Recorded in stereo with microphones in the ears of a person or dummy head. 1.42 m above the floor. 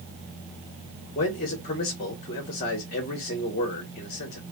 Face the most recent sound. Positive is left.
turn(degrees=40)  # may be behind; listen again after turning